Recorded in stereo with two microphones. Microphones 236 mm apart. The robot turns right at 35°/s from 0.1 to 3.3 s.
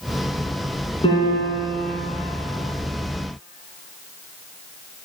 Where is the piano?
155° left, 2.5 m; by 2.1 s 165° right, 2.5 m.